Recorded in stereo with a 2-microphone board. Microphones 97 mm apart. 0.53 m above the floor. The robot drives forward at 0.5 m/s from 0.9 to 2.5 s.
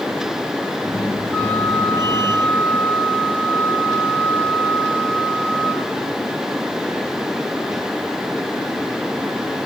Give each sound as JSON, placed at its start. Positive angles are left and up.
{"t": 1.3, "sound": "a flute", "side_deg": 15, "distance_m": 4.0}